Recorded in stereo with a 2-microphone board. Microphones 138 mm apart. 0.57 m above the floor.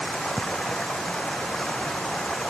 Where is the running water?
5° left (ahead or behind).